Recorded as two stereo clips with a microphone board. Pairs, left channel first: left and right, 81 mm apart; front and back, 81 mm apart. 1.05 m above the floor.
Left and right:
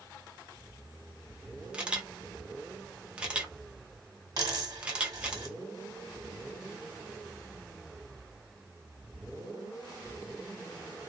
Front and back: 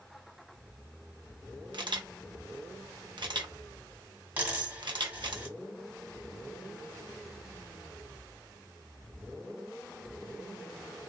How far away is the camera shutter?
About 0.7 m.